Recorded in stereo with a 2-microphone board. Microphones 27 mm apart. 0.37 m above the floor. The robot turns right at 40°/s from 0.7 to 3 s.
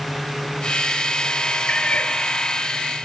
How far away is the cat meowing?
About 2.0 m.